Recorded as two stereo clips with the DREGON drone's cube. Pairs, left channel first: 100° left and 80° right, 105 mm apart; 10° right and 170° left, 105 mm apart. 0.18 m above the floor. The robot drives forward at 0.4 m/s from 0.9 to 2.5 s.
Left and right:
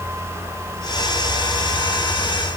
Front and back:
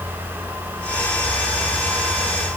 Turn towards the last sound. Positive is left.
No sound to turn to.